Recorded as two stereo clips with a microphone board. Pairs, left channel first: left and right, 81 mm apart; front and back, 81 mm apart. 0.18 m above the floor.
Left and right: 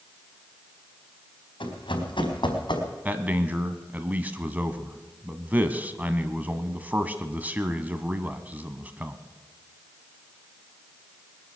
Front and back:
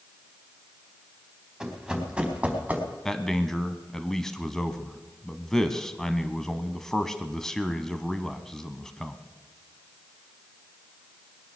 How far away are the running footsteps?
About 4.5 m.